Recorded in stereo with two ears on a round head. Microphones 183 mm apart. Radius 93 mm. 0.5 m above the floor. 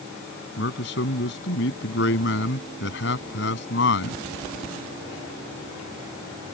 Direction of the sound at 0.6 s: 60° left (ahead or behind).